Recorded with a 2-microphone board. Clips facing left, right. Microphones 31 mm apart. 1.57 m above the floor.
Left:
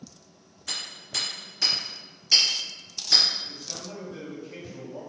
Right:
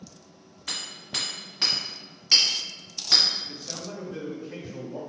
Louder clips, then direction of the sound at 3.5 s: Right 2 dB; 30° right (ahead or behind).